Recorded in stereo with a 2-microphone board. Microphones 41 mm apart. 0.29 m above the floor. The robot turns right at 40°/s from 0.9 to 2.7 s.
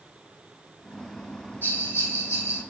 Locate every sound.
1.6 s a bell: 55° left, 1.0 m; by 2.6 s 95° left, 1.0 m